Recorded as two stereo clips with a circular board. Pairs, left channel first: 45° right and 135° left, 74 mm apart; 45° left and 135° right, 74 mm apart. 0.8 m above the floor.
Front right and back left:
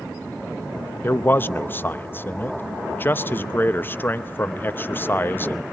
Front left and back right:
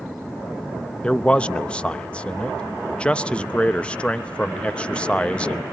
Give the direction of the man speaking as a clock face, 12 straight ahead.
1 o'clock.